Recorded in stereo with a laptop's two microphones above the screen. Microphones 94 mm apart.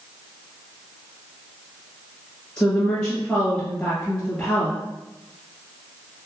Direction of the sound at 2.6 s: 15° left (ahead or behind).